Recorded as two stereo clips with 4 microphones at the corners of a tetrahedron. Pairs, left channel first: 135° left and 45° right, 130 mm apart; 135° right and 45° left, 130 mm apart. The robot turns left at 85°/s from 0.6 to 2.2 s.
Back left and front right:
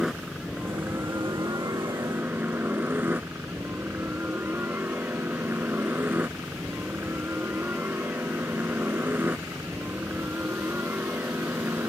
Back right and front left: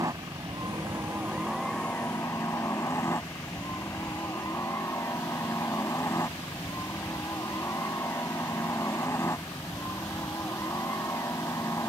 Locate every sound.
0.0 s a helicopter: 40° left; by 11.9 s 100° right